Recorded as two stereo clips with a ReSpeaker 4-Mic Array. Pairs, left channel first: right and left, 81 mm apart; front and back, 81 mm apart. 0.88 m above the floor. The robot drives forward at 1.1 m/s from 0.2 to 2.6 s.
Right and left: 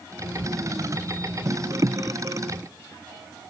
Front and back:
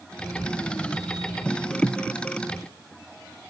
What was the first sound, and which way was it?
Only background noise.